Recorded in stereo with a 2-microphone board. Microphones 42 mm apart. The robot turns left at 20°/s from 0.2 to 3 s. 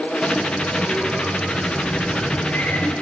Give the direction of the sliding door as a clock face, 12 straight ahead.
7 o'clock.